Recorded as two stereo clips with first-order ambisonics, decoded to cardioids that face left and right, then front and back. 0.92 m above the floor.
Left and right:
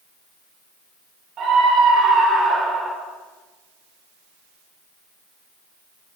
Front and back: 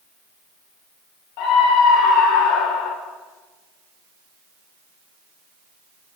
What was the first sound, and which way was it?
A scream, 30° right.